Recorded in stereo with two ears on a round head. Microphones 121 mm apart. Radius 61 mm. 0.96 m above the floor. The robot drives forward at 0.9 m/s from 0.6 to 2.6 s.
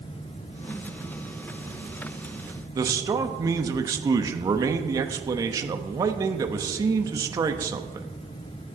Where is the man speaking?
25° right (ahead or behind), 0.9 m.